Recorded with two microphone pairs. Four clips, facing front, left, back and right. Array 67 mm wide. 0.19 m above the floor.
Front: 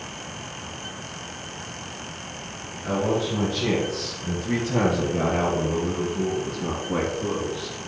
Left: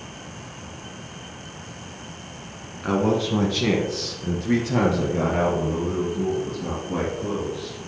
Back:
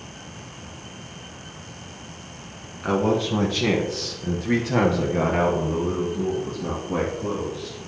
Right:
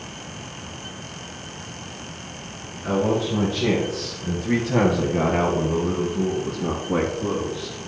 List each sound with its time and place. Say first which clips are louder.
2.8 s a man speaking: even, back 3 dB; 140° left, 1.6 m; by 7.8 s 75° right, 2.5 m